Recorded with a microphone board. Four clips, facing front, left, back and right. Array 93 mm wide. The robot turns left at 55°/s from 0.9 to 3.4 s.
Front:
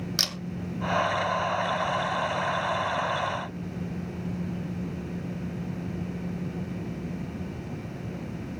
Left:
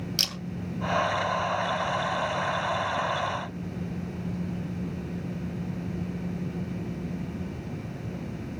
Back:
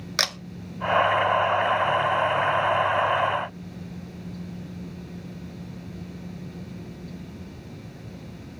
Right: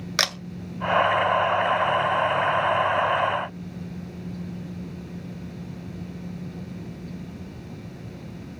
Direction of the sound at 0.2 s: 120° right.